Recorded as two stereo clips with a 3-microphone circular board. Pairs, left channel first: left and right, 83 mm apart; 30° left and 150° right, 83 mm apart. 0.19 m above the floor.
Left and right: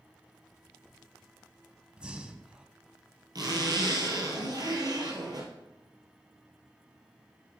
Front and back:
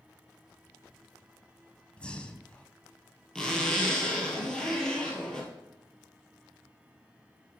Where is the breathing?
30° right, 0.7 m.